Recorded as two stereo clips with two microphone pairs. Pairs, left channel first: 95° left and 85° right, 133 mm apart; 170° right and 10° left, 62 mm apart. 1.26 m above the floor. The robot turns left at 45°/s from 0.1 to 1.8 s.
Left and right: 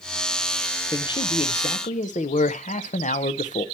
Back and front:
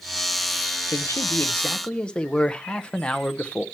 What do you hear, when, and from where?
0.9 s a man speaking: 155° left, 0.7 m; by 3.6 s 115° left, 0.7 m